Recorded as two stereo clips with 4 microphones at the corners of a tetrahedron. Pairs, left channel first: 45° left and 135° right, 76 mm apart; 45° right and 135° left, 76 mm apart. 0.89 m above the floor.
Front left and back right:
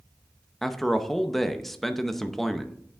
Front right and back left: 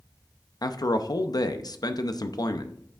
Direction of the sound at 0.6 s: 40° right.